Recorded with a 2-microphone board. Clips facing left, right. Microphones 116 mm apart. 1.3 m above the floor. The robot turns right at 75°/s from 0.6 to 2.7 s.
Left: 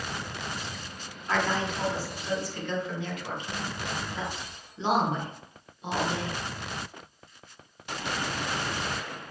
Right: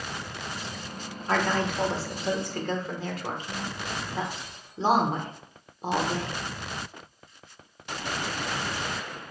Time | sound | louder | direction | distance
1.3 | a woman speaking | right 2 dB | 35° right (ahead or behind) | 1.1 m